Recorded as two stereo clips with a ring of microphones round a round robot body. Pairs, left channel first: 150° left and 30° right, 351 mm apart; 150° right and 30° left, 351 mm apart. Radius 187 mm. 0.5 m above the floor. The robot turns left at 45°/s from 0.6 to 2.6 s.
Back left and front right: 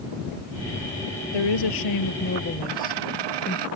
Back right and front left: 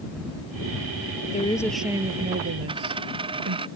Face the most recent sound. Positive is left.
turn(degrees=-45)